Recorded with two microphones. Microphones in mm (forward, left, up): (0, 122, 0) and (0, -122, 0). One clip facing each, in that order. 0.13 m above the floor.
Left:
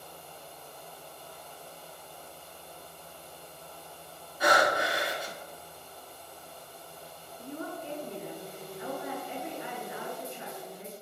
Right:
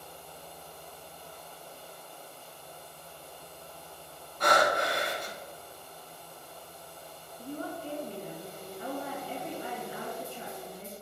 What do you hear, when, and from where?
4.4 s breathing: 5° left (ahead or behind), 0.8 m
7.4 s a woman speaking: 35° right (ahead or behind), 1.4 m